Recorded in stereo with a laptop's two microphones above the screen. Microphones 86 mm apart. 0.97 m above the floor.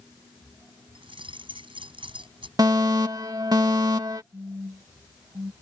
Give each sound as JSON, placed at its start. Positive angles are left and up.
{"t": 0.9, "sound": "keys jangling", "side_deg": -90}
{"t": 2.6, "sound": "a fire alarm", "side_deg": -50}
{"t": 4.3, "sound": "a phone buzzing", "side_deg": -45}